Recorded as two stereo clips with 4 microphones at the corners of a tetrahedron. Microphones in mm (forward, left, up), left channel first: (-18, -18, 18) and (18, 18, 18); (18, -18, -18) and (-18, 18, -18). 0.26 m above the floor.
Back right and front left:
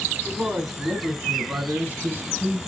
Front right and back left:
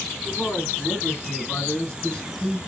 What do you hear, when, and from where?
0.2 s a man speaking: 5° left, 3 m; by 2.6 s 25° left, 2.0 m